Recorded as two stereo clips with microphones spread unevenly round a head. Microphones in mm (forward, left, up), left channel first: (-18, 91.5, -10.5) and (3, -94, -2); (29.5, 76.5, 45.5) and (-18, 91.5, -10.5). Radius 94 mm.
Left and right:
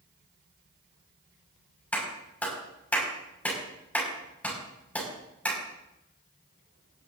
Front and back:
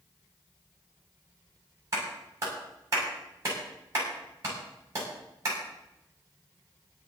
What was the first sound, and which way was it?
A clap, straight behind.